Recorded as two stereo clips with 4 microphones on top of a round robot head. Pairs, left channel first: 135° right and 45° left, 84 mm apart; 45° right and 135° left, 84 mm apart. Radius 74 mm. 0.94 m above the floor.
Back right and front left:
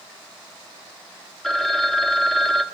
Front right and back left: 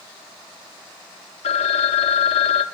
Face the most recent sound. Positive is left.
turn(degrees=-50)